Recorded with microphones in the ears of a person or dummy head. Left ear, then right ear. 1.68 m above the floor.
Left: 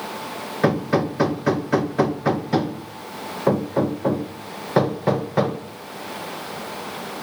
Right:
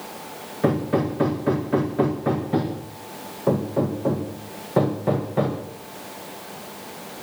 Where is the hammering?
70° left (ahead or behind), 1.4 m.